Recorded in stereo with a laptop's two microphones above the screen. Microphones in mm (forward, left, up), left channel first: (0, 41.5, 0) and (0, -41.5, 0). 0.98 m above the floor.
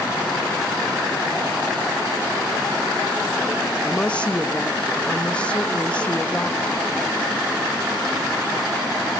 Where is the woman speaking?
15° left (ahead or behind), 0.9 m.